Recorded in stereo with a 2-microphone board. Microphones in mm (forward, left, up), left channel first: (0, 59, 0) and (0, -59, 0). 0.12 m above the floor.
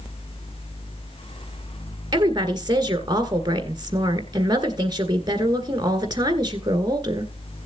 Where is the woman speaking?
35° right (ahead or behind), 1.7 m.